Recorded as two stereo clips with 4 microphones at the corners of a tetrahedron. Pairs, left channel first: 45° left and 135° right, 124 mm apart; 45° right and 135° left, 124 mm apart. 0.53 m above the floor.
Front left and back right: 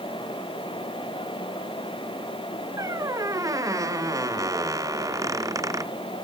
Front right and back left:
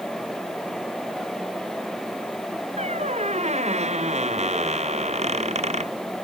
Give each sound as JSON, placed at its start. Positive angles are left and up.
{"t": 2.8, "sound": "a squeak", "azimuth_deg": 160}